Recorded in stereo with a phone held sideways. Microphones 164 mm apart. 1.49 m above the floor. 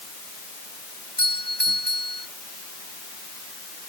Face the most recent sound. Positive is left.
turn(degrees=-65)  # may be behind; listen again after turning